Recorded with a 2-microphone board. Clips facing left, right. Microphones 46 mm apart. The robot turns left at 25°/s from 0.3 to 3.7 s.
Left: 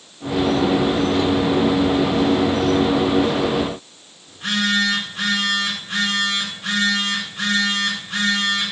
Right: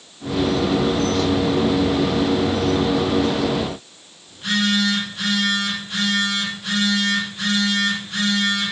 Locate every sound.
4.3 s a phone buzzing: 60° left (ahead or behind), 4 m